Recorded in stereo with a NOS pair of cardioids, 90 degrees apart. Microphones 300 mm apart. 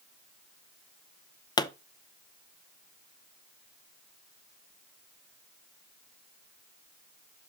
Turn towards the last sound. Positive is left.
turn(degrees=15)